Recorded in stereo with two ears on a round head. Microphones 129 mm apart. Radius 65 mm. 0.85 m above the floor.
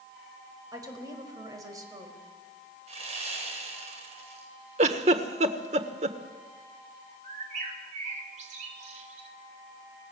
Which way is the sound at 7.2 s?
50° right (ahead or behind).